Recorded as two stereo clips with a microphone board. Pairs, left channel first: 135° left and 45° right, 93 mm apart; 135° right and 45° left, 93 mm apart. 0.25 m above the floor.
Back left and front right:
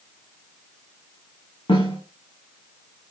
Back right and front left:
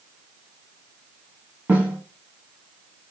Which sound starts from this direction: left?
A snare drum, at 1.7 s.